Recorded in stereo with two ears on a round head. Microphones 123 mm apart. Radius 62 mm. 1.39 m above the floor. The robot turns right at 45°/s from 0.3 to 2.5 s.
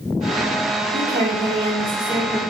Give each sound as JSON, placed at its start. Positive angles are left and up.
{"t": 0.9, "sound": "a woman speaking", "azimuth_deg": -85, "distance_m": 0.7}